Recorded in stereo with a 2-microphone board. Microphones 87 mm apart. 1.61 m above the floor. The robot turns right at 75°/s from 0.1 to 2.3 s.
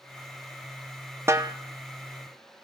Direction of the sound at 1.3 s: 30° right (ahead or behind).